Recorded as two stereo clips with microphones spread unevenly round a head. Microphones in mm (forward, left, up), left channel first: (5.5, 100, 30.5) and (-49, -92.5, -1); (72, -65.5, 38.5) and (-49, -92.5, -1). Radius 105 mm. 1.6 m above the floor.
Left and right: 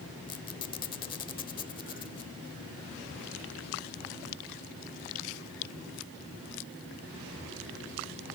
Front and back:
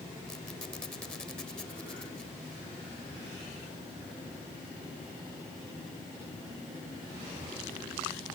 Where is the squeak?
55° left.